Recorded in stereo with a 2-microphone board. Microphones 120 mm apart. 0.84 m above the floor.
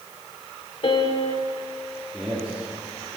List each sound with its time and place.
0.8 s a piano: 50° left (ahead or behind), 0.9 m
2.1 s a man speaking: 10° right (ahead or behind), 2.5 m